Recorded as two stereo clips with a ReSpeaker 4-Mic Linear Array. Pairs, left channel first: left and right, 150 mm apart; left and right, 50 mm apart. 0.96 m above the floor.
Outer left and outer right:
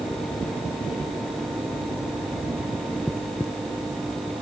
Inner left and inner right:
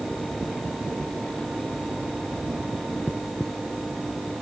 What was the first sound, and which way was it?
Only background noise.